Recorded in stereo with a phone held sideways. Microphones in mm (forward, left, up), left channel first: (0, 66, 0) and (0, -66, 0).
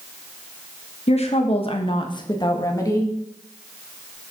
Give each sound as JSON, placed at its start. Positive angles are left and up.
{"t": 1.1, "sound": "a woman speaking", "side_deg": 50, "distance_m": 1.1}